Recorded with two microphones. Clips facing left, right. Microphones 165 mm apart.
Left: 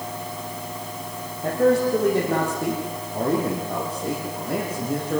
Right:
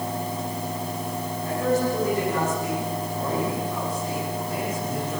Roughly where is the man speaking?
Left.